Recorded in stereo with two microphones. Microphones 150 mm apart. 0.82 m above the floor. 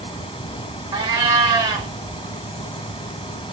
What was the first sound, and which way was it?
A cat meowing, 30° right (ahead or behind).